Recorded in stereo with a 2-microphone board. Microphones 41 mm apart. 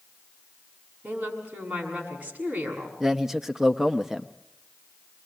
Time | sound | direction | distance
1.0 | a woman speaking | 30° right (ahead or behind) | 7 m
3.0 | a man speaking | 10° right (ahead or behind) | 0.7 m